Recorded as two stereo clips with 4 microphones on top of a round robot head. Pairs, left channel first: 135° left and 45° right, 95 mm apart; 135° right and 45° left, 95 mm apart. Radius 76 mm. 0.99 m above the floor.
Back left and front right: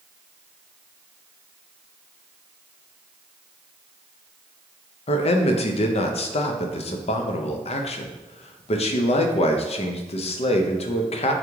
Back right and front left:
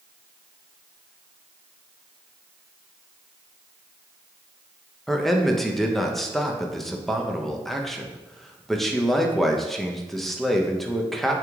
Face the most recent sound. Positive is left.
turn(degrees=135)